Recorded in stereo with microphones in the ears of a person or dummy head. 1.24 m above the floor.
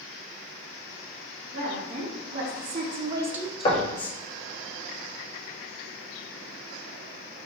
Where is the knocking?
25° left (ahead or behind), 0.6 m.